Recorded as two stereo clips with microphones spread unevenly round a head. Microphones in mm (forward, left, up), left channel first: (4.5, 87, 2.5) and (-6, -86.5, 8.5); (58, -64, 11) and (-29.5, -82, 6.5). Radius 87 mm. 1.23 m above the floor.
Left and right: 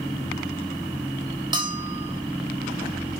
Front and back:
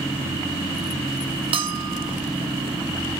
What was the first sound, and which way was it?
A bell, 160° right.